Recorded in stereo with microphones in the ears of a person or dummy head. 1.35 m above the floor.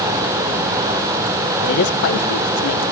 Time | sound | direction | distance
1.6 | a man speaking | 45° left (ahead or behind) | 0.9 m